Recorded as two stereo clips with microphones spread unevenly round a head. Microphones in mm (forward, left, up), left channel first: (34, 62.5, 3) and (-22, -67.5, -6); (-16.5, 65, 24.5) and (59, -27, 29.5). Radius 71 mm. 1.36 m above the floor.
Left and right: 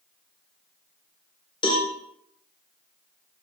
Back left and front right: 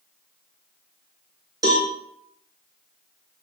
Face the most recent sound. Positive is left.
turn(degrees=10)